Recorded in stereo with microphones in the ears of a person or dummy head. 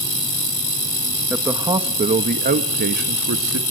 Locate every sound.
1.3 s a man speaking: 5° right (ahead or behind), 1.6 m; by 3.6 s 65° right (ahead or behind), 2 m